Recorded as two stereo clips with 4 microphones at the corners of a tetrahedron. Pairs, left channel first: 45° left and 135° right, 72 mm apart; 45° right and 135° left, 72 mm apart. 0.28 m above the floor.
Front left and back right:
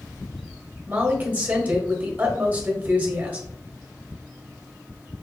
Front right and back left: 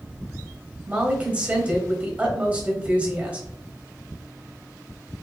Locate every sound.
0.9 s a woman speaking: 170° right, 1.1 m